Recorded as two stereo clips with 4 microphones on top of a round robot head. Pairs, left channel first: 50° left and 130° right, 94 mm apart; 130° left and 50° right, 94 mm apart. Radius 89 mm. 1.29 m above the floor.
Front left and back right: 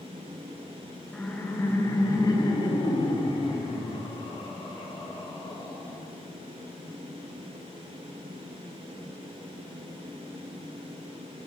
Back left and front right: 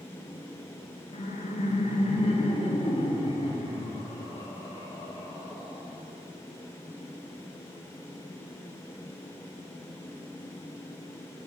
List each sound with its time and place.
1.1 s laughter: 130° left, 1.4 m; by 6.0 s 80° left, 5.5 m